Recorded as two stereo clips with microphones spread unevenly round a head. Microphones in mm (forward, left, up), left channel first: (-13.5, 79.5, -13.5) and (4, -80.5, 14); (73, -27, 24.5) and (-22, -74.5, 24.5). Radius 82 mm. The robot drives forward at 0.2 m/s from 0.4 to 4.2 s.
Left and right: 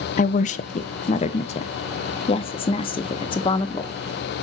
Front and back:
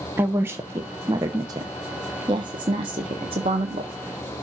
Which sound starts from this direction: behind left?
A woman speaking, at 0.2 s.